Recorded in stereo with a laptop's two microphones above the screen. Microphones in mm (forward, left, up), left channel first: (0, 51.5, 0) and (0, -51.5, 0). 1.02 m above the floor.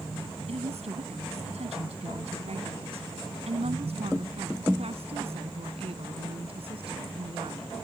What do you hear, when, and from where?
0.5 s a woman speaking: 85° right; by 7.7 s 65° right (ahead or behind)